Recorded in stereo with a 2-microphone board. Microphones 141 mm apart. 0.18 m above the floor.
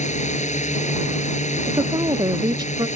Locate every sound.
0.0 s a drone: 50° left (ahead or behind)
1.6 s a woman speaking: 30° right (ahead or behind)